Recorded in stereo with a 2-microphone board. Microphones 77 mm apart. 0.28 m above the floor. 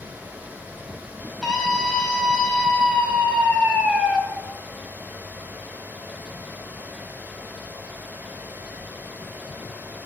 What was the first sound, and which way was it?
A scream, 5° right (ahead or behind).